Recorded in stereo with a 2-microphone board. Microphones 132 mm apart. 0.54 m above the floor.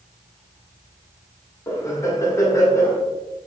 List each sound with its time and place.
1.7 s laughter: 25° left (ahead or behind), 0.9 m